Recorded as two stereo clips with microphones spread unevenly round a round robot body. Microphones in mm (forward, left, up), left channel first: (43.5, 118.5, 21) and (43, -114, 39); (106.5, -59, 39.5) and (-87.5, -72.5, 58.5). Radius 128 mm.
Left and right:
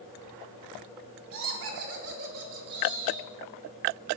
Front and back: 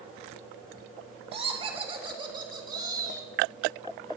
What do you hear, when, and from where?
1.3 s laughter: 120° right, 2.5 m; by 3.3 s 105° right, 3.5 m